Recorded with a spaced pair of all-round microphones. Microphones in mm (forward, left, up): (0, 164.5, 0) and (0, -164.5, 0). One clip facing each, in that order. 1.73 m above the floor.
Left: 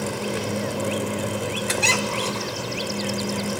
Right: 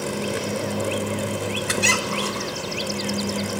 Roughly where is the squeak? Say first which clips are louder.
Even; centre.